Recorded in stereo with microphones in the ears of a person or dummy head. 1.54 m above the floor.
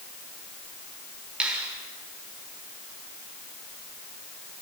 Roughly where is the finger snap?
Centre.